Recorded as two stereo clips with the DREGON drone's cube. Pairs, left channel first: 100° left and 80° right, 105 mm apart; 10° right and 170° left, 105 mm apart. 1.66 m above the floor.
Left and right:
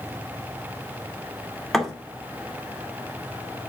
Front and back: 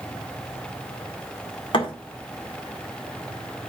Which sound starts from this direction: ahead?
A thud, at 1.7 s.